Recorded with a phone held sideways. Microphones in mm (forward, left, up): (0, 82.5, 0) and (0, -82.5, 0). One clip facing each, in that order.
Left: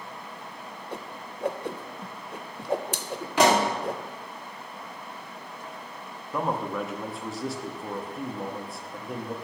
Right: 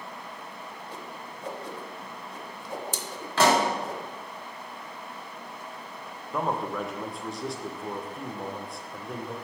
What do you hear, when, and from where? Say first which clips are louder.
0.9 s a whoosh: left 2 dB; 65° left (ahead or behind), 0.5 m
3.4 s a pop: left 1 dB; 15° left (ahead or behind), 1.4 m
6.3 s a man speaking: left 1 dB; centre (ahead or behind), 0.7 m